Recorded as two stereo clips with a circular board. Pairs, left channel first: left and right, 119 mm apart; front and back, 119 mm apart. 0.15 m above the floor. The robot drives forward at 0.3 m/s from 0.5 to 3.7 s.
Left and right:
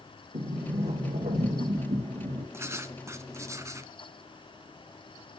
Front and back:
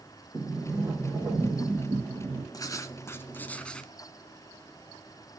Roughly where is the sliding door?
Right.